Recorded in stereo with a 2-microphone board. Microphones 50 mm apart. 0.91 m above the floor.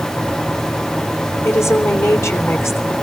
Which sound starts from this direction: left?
A woman speaking, at 1.4 s.